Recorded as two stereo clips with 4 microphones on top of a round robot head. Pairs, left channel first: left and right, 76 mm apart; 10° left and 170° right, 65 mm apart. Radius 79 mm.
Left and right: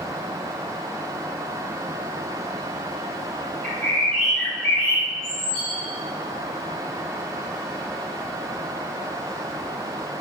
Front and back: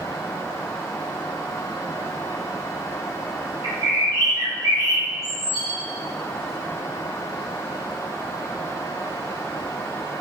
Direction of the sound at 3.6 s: 175° left.